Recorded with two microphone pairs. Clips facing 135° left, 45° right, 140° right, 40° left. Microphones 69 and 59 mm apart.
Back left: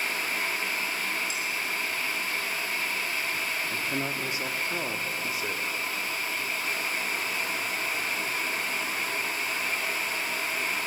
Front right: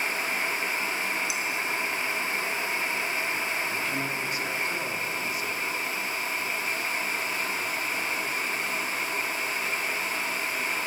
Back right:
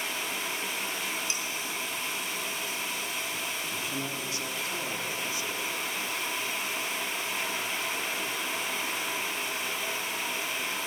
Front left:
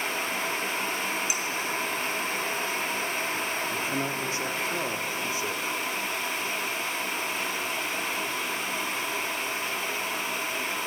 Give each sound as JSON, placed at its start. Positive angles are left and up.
{"t": 1.3, "sound": "dishes clattering", "azimuth_deg": -35, "distance_m": 3.5}
{"t": 3.7, "sound": "a man speaking", "azimuth_deg": 80, "distance_m": 1.5}